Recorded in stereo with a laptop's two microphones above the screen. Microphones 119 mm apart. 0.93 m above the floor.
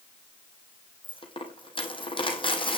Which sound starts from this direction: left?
A dropped coin, at 1.0 s.